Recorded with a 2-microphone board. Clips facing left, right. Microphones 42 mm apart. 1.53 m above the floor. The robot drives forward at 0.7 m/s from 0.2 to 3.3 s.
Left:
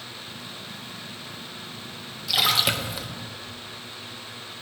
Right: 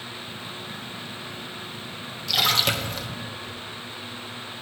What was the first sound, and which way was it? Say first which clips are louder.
A splash: even; 5° left (ahead or behind).